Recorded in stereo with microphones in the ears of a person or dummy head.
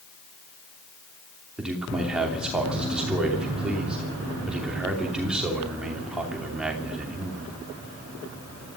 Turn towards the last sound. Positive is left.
turn(degrees=-5)  # may be behind; listen again after turning